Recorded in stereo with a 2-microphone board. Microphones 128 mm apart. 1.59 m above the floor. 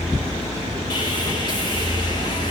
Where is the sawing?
35° left (ahead or behind), 4 m.